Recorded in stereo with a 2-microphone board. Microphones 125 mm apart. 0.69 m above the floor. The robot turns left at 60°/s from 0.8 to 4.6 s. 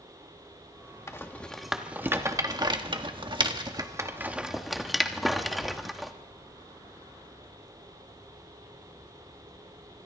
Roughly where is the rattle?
Left.